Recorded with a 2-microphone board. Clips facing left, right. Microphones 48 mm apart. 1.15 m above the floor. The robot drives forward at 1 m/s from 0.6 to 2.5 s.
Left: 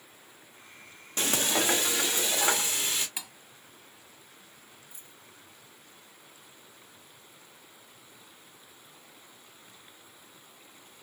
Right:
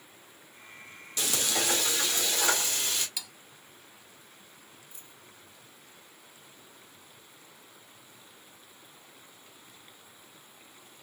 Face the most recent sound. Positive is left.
turn(degrees=30)  # may be behind; listen again after turning